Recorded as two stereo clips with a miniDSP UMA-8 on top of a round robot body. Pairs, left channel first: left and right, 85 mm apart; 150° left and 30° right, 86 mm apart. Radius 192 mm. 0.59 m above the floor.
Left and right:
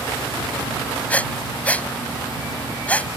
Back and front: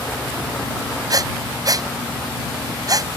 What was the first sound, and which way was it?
Breathing, 15° left.